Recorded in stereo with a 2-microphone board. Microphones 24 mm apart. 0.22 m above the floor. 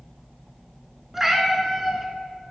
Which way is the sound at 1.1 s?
10° right (ahead or behind).